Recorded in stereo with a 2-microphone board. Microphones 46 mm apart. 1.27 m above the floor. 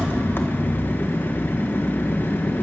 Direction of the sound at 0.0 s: 45° left (ahead or behind).